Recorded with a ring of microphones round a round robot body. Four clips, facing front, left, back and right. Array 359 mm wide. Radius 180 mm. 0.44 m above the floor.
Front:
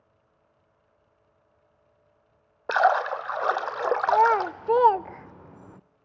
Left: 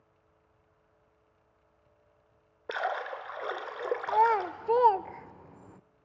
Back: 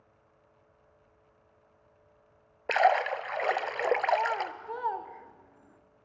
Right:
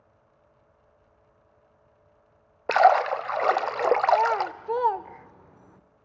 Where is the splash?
75° right, 0.6 m.